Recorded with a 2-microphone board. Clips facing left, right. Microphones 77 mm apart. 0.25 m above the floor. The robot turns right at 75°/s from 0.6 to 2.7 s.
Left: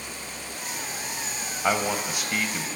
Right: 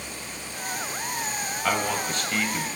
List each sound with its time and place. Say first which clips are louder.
1.6 s a man speaking: left 2 dB; 20° left (ahead or behind), 0.9 m; by 2.7 s centre (ahead or behind), 0.9 m